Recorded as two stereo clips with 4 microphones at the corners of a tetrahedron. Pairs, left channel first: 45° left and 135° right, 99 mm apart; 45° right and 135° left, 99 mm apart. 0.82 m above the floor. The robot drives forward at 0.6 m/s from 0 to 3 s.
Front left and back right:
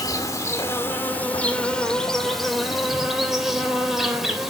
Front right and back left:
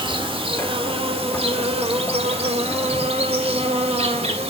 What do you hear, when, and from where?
0.0 s an insect: 100° left, 2.0 m; by 4.5 s 140° left, 3 m